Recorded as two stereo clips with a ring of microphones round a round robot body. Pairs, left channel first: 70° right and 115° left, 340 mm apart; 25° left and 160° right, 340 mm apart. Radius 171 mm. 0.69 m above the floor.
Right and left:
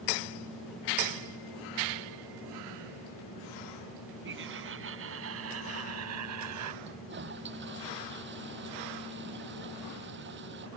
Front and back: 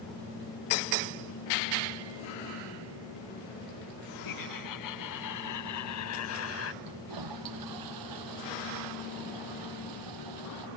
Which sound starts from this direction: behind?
A toilet flushing, at 6.8 s.